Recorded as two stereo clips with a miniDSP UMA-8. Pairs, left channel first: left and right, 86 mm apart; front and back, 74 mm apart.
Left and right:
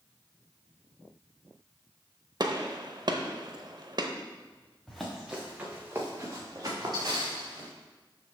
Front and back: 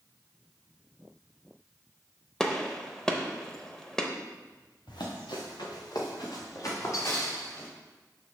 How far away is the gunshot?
About 0.6 m.